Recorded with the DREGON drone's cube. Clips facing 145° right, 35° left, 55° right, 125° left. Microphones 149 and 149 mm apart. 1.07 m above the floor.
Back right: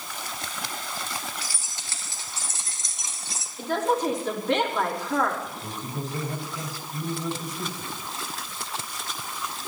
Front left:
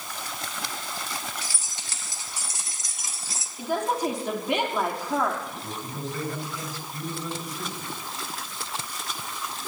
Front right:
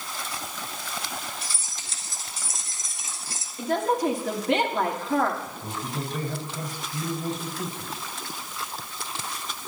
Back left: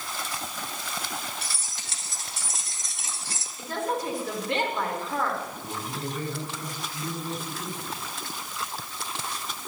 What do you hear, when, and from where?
1.4 s keys jangling: 105° left, 4 m; by 3.5 s 125° left, 1.8 m
3.6 s a woman speaking: 45° right, 3 m
5.5 s a man speaking: 70° right, 5 m